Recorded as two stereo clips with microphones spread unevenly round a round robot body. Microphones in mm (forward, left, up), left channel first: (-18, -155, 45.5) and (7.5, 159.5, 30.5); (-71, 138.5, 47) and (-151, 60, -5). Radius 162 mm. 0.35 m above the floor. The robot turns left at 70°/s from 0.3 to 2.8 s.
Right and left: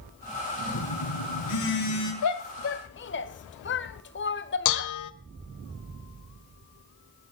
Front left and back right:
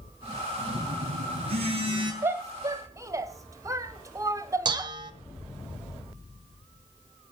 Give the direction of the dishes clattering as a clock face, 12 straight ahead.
4 o'clock.